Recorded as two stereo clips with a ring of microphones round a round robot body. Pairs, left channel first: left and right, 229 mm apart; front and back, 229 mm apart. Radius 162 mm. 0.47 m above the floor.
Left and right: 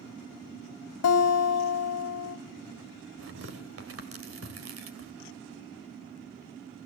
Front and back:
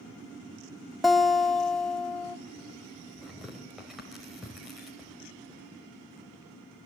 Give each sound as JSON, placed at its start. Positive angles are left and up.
{"t": 1.0, "sound": "a guitar", "azimuth_deg": 90, "distance_m": 1.7}
{"t": 3.2, "sound": "tearing paper", "azimuth_deg": -90, "distance_m": 2.5}